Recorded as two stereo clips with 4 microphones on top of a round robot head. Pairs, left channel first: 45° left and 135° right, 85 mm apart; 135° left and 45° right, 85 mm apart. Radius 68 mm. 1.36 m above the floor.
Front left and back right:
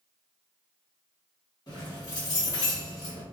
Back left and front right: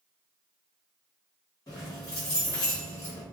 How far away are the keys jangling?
About 1.1 m.